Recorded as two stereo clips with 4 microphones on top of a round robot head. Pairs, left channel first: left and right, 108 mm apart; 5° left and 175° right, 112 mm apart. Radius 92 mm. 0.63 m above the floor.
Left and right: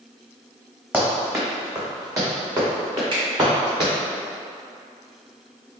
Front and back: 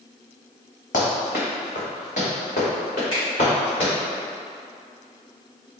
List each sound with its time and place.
0.9 s running footsteps: 20° right, 1.6 m; by 3.9 s 45° right, 3 m
3.1 s a finger snap: 50° right, 1.6 m